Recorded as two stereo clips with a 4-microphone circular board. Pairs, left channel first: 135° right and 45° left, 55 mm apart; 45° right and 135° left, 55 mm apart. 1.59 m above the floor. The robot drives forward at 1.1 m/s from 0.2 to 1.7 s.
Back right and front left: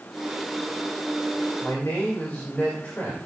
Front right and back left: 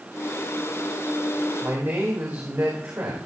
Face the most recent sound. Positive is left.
turn(degrees=170)